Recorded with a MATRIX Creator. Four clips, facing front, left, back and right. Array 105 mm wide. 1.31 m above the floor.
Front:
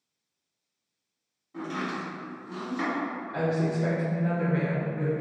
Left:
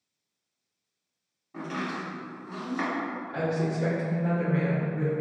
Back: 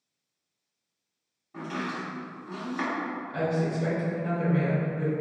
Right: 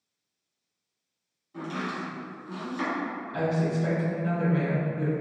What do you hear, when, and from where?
1.5 s chopping: 120° left, 1.5 m
3.3 s a woman speaking: 95° left, 1.7 m